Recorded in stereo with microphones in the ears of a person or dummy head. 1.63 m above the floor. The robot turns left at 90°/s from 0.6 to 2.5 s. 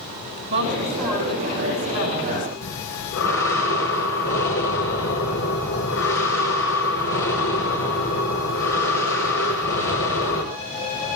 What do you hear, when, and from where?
0.5 s a woman speaking: 125° right, 8.5 m; by 2.5 s 65° left, 8.5 m
2.6 s breathing: 80° left, 6 m